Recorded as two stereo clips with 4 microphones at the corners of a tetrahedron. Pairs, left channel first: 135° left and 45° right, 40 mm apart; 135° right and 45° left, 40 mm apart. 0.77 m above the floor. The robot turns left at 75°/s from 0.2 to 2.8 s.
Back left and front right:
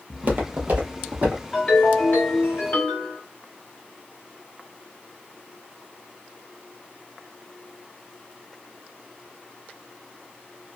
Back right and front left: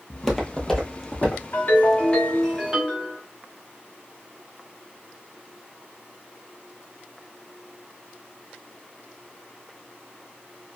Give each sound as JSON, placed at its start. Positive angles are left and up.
{"t": 0.1, "sound": "footsteps", "azimuth_deg": -45, "distance_m": 0.9}
{"t": 1.5, "sound": "a ringtone", "azimuth_deg": -150, "distance_m": 1.6}